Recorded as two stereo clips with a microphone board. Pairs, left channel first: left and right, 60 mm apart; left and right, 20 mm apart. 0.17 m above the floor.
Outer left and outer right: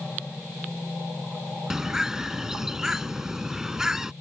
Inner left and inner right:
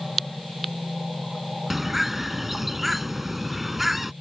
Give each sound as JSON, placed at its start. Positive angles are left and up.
{"t": 1.7, "sound": "a bird", "side_deg": -10}